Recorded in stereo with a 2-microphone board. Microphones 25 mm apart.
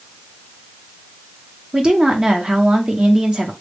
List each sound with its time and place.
1.7 s a woman speaking: 35° right (ahead or behind), 0.9 m